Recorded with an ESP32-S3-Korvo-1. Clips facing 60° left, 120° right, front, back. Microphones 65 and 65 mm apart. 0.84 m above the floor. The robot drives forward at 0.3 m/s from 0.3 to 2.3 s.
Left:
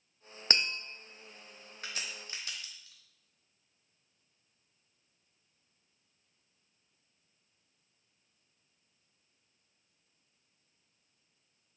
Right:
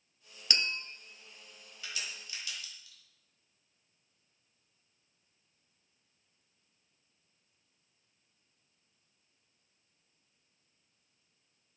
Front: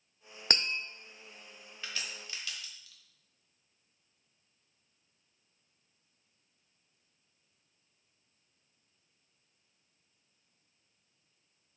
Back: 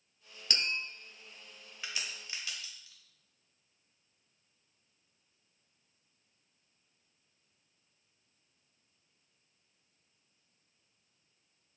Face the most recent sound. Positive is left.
turn(degrees=110)